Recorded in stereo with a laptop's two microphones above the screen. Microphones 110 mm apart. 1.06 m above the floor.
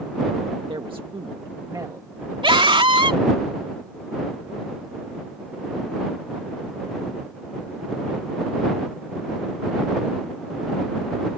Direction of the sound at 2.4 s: 50° right (ahead or behind).